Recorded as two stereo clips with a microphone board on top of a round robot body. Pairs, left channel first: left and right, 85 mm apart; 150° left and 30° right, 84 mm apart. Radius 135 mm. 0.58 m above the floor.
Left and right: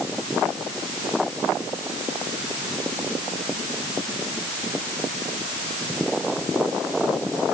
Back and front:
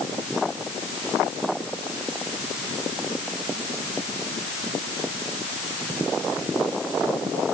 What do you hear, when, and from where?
Only background noise.